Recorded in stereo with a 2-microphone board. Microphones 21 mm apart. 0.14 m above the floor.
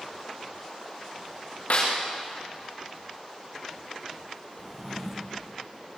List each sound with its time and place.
1.7 s a snare drum: 65° left (ahead or behind), 6.5 m
4.6 s a drawer: 5° right (ahead or behind), 3 m